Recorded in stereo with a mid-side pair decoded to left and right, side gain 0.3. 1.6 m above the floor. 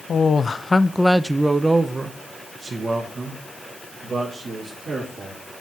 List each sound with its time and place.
0.1 s a man speaking: 65° left, 0.7 m; by 5.4 s 65° right, 3 m